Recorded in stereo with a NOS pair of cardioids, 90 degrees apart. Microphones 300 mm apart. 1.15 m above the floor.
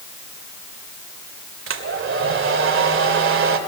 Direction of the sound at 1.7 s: 45° right.